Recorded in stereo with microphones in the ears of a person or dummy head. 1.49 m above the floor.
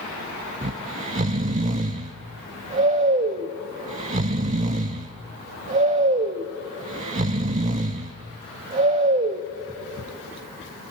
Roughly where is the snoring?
Right.